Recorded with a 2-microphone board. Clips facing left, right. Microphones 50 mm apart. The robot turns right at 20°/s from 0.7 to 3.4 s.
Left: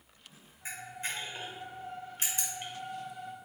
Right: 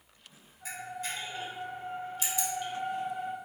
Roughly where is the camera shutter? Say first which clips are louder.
Right 1 dB; left.